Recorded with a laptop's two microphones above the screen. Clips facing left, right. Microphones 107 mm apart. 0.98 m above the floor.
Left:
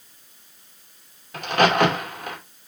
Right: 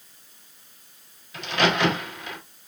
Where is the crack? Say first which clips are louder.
Left 5 dB; 50° left (ahead or behind), 2.5 m.